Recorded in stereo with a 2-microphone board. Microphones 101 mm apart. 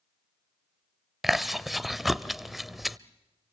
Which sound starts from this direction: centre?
Chewing, at 1.2 s.